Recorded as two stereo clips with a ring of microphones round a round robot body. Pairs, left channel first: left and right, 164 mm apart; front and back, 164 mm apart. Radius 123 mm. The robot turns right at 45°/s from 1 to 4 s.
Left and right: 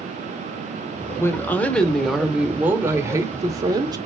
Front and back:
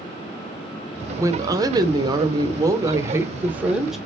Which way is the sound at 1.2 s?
140° left.